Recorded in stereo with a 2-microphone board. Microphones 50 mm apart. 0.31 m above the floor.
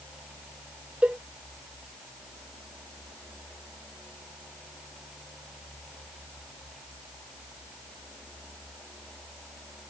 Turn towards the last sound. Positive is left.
turn(degrees=-25)  # may be behind; listen again after turning